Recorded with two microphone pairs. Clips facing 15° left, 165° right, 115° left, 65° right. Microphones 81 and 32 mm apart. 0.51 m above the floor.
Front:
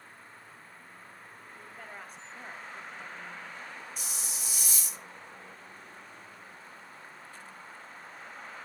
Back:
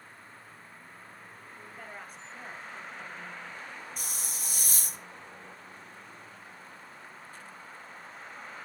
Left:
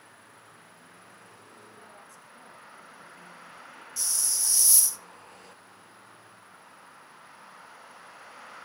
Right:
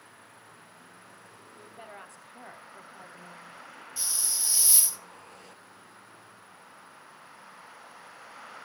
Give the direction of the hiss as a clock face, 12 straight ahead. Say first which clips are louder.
Back 1 dB, left 1 dB; 4 o'clock.